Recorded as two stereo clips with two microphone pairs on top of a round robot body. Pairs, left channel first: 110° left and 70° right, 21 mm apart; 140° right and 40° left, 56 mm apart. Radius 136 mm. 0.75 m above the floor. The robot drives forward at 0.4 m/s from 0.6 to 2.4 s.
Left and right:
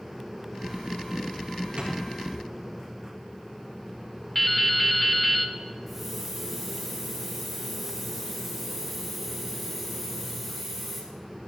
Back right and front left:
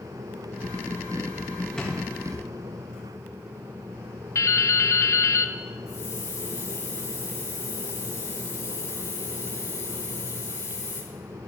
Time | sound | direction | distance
1.8 | a drawer | 65° right | 3 m
4.3 | dripping | 165° right | 0.7 m
5.9 | a hiss | 150° right | 3 m